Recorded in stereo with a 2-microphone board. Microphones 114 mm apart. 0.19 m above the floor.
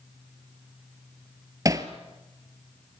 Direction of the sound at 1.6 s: 30° right (ahead or behind).